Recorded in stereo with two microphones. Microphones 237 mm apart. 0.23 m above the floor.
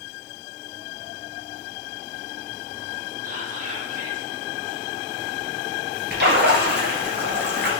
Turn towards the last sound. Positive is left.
turn(degrees=-45)  # may be behind; listen again after turning